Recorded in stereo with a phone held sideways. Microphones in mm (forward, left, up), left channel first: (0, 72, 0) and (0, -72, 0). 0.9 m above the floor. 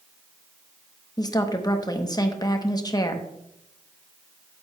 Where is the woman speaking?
25° left (ahead or behind), 0.8 m.